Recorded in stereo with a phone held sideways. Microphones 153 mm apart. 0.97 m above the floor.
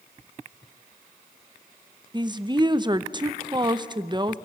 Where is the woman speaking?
30° right (ahead or behind), 0.7 m.